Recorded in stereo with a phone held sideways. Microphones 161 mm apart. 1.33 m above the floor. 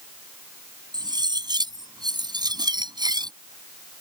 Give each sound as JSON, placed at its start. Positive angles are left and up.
{"t": 0.9, "sound": "cutlery clinking", "side_deg": -25}